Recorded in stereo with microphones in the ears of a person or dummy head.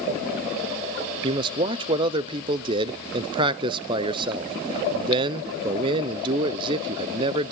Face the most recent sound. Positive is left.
turn(degrees=-30)  # may be behind; listen again after turning